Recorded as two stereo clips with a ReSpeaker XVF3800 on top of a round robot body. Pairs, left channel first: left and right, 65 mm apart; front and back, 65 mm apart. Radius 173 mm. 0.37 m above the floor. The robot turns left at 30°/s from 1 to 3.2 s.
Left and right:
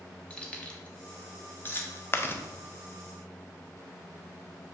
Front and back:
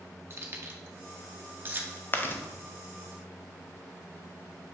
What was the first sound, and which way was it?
Keys jangling, 155° left.